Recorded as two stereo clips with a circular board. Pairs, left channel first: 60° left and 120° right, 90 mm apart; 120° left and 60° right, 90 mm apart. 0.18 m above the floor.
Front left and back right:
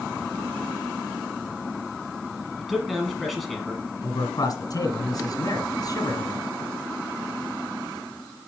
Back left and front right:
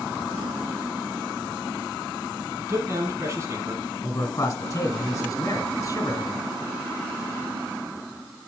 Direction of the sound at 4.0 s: 80° left.